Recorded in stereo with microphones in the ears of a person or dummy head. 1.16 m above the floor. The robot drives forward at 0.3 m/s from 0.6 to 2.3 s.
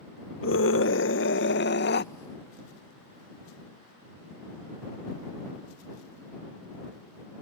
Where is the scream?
60° left (ahead or behind); by 2.1 s 50° left (ahead or behind).